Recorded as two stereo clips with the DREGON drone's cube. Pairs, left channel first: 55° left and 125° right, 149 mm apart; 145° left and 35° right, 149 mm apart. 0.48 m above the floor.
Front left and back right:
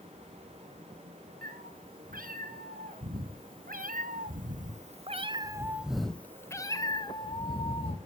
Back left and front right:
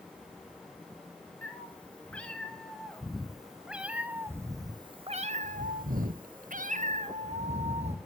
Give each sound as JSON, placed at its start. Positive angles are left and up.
{"t": 1.4, "sound": "a cat meowing", "azimuth_deg": -135, "distance_m": 3.0}